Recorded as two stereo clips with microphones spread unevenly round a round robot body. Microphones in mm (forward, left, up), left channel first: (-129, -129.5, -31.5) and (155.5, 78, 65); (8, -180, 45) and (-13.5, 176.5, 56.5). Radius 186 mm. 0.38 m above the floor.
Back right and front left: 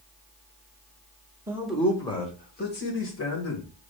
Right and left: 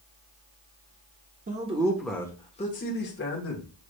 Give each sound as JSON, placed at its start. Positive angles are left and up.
{"t": 1.5, "sound": "a man speaking", "azimuth_deg": 140, "distance_m": 1.0}